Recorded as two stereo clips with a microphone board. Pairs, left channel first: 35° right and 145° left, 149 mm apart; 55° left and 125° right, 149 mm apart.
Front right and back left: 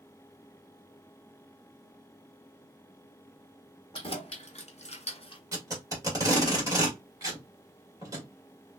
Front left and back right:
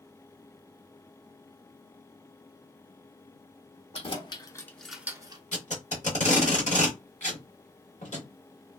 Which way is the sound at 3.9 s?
15° left.